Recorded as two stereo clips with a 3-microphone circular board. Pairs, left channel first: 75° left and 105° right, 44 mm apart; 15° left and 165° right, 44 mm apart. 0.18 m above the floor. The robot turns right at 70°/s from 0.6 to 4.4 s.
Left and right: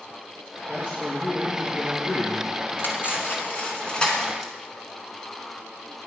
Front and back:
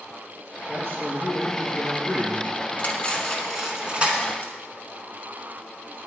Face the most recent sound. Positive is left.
turn(degrees=165)